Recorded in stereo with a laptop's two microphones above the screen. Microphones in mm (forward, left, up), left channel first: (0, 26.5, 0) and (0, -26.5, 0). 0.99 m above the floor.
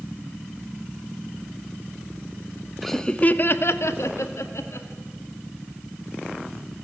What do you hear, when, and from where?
2.8 s laughter: centre (ahead or behind), 1.0 m; by 4.9 s 70° left (ahead or behind), 2 m